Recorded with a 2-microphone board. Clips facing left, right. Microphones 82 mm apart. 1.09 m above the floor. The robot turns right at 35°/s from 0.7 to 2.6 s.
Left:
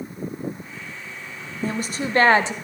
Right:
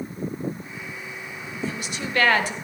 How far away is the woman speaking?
About 0.9 m.